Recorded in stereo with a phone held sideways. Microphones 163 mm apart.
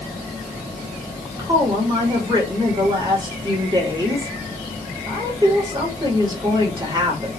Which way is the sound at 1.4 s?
25° right (ahead or behind).